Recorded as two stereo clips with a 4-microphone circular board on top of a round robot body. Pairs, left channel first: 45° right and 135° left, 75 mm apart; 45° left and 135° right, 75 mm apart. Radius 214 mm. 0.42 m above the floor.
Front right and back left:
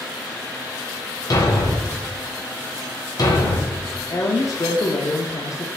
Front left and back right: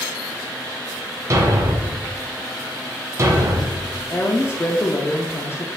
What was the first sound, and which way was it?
A thud, 85° right.